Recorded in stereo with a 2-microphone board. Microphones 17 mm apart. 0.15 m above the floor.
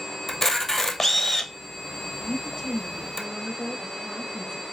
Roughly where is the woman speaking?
Left.